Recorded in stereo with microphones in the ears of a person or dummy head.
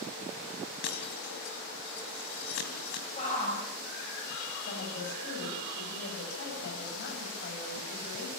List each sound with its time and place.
0.8 s breaking glass: 60° left (ahead or behind), 3 m
3.2 s a shout: 40° left (ahead or behind), 5.5 m
4.6 s a woman speaking: 65° left (ahead or behind), 9 m